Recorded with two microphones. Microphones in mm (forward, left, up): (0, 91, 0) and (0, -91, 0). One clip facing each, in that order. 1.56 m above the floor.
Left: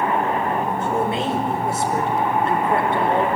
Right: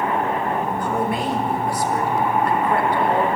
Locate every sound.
0.8 s a woman speaking: 25° left (ahead or behind), 4.5 m